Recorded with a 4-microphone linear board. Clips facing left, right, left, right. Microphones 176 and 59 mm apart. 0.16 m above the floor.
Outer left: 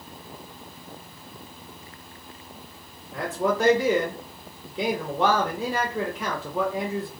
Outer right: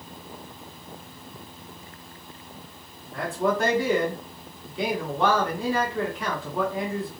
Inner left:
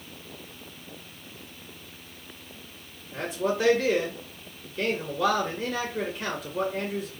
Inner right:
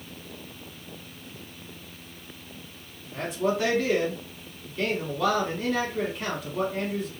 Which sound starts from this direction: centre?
A man speaking, at 3.1 s.